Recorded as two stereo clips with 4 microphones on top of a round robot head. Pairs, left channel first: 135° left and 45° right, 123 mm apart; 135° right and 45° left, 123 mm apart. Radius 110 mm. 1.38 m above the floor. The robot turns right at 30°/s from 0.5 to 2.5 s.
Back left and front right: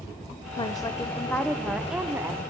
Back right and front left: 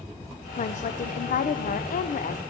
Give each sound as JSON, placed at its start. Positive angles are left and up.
{"t": 0.6, "sound": "a woman speaking", "azimuth_deg": -170, "distance_m": 0.7}